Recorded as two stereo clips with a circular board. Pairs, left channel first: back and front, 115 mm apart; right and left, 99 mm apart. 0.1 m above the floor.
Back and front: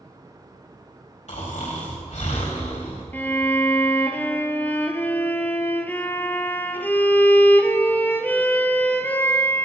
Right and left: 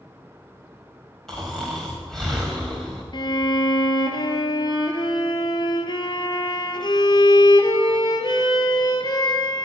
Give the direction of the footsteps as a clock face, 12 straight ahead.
I don't hear footsteps.